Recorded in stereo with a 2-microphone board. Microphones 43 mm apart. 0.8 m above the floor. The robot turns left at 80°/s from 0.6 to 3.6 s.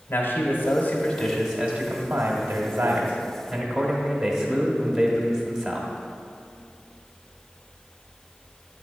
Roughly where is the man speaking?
Ahead left.